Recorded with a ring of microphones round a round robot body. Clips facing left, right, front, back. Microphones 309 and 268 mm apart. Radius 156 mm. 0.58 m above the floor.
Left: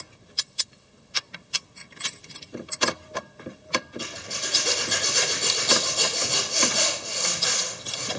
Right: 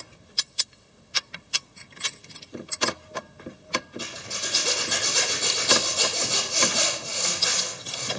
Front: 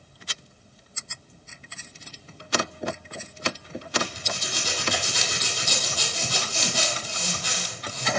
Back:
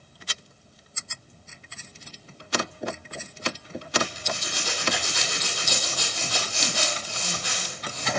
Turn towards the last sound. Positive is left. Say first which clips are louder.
# left 1 dB, back 1 dB
turn(degrees=-10)